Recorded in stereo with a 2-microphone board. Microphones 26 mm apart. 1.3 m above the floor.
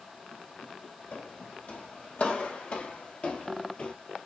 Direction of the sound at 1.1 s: 65° left (ahead or behind).